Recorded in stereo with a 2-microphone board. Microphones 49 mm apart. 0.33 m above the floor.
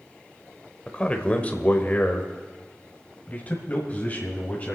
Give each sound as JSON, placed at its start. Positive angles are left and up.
{"t": 0.9, "sound": "a man speaking", "side_deg": 25, "distance_m": 1.3}